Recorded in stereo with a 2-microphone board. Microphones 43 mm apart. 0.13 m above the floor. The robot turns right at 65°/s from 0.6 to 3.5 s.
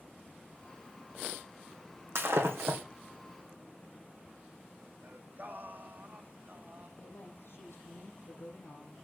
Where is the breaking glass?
105° right, 2.5 m; by 2.8 s 60° right, 2.5 m.